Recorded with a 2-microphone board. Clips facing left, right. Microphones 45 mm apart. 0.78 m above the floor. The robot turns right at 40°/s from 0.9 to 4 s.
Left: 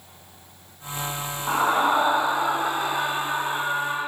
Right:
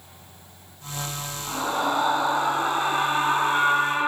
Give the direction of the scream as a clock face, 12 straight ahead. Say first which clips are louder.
Left 5 dB; 7 o'clock.